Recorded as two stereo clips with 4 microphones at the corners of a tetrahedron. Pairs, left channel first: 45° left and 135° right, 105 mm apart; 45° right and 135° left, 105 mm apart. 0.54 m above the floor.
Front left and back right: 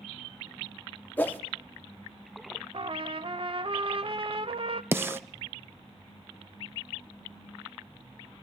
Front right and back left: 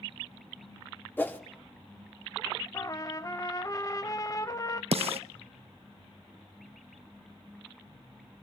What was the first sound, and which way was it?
A whoosh, 5° right.